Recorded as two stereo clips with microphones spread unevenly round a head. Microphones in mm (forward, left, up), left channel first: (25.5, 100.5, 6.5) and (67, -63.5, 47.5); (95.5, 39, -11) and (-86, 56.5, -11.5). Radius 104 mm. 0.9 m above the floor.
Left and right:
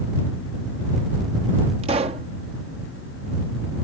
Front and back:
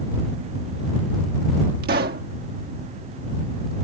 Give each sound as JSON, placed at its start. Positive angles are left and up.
{"t": 1.8, "sound": "a pop", "azimuth_deg": -140}